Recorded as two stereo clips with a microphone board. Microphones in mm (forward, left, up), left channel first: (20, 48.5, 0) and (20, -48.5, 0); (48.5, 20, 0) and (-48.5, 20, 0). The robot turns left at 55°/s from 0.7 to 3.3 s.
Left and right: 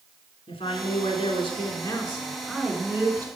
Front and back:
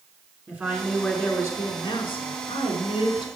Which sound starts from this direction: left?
A woman speaking, at 0.5 s.